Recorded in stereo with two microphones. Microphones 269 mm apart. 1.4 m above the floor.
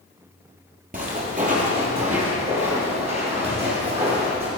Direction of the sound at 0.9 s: 30° right (ahead or behind).